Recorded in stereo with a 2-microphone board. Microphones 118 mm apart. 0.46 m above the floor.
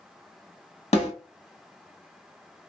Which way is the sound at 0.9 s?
70° left (ahead or behind).